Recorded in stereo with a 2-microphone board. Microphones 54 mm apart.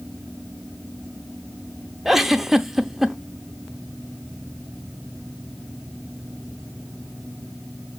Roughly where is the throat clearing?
No throat clearing in this recording.